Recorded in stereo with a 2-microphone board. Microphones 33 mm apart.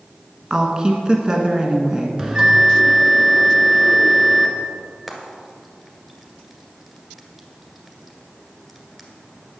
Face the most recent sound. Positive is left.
turn(degrees=-5)  # may be behind; listen again after turning